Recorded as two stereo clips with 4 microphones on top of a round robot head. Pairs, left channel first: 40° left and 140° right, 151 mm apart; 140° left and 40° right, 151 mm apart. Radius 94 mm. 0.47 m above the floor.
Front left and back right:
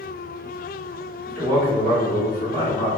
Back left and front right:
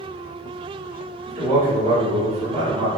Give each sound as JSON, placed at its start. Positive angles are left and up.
{"t": 1.3, "sound": "a man speaking", "azimuth_deg": -35, "distance_m": 1.5}